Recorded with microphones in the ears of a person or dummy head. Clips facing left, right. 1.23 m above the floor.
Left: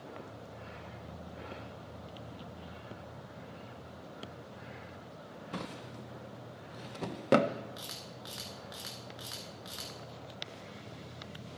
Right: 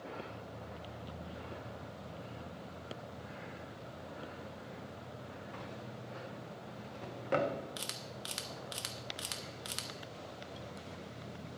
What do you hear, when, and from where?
5.5 s a drawer: 55° left (ahead or behind), 0.5 m
7.8 s a camera shutter: 40° right (ahead or behind), 0.9 m